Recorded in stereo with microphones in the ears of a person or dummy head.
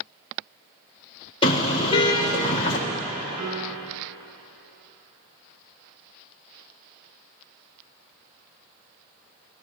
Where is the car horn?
30° left (ahead or behind), 3.5 m.